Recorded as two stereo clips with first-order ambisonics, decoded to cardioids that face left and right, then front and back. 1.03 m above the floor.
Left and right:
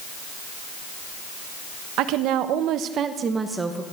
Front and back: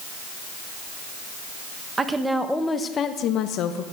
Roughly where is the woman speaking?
Right.